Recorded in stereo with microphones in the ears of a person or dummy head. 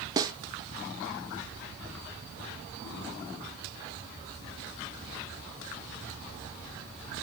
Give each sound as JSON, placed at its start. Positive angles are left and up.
{"t": 0.2, "sound": "a snare drum", "side_deg": -20, "distance_m": 0.6}